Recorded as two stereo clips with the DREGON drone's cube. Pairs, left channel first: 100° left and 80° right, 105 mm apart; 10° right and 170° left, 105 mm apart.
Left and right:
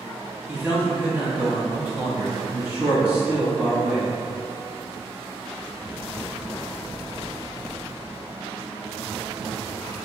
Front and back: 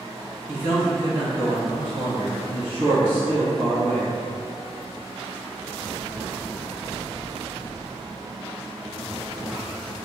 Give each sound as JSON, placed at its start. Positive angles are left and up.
{"t": 0.5, "sound": "a man speaking", "azimuth_deg": -150, "distance_m": 1.4}